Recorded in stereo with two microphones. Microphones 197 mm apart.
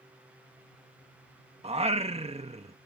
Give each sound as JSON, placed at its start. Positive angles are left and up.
{"t": 1.6, "sound": "singing", "side_deg": -30}